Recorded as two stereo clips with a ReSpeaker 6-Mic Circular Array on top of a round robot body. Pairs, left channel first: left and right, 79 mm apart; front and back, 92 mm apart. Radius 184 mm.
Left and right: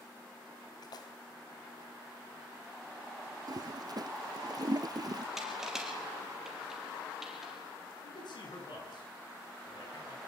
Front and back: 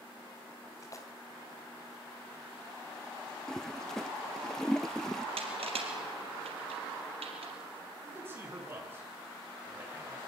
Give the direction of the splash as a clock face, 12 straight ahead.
10 o'clock.